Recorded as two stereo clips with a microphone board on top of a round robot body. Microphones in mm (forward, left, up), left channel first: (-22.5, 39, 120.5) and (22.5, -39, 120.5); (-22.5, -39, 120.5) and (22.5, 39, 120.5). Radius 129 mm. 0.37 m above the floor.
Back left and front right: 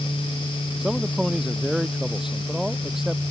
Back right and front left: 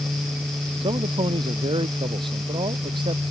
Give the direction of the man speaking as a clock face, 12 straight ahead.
11 o'clock.